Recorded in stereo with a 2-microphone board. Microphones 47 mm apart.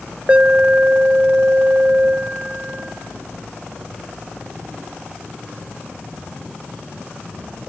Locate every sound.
0.3 s an alarm: 25° right (ahead or behind), 0.8 m